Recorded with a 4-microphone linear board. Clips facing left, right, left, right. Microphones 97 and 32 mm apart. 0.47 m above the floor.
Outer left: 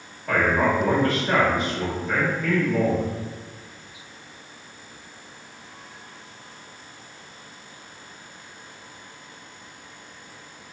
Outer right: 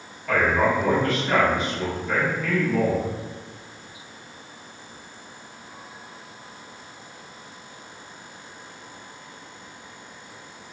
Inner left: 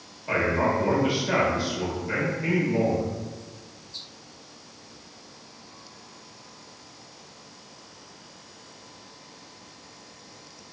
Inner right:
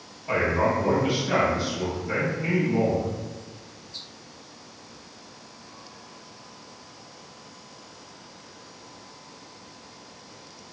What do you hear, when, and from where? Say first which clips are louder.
0.3 s a man speaking: even, inner right 1 dB; 30° left (ahead or behind), 1.3 m